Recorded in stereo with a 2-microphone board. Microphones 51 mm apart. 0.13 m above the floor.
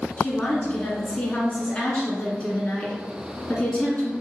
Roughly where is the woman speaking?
Left.